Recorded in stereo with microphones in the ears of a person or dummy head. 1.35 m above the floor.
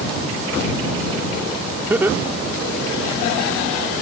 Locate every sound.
1.9 s laughter: 5° right (ahead or behind); by 3.2 s 15° right (ahead or behind)